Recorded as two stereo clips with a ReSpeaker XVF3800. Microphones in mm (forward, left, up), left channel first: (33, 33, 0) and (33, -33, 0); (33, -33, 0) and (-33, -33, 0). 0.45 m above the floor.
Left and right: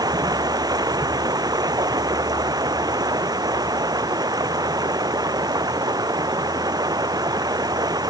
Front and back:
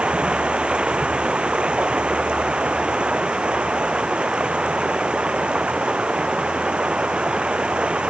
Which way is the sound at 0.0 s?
105° right.